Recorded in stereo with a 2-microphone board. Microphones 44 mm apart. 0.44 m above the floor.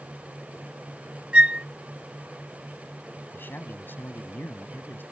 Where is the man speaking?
55° left (ahead or behind).